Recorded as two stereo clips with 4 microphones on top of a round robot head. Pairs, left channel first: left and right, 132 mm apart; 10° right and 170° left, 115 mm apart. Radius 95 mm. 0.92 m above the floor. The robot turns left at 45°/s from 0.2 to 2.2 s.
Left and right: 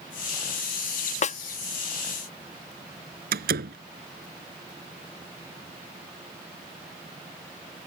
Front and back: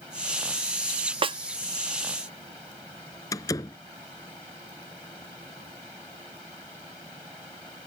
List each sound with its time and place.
1.2 s a snare drum: 125° left; by 1.4 s 120° left
3.3 s a door slam: 80° right